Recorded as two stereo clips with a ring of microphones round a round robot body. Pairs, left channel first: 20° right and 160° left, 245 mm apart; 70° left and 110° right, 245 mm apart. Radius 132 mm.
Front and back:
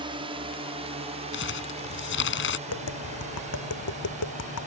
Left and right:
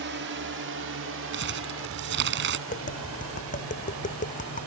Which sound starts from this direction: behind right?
A drone, at 0.0 s.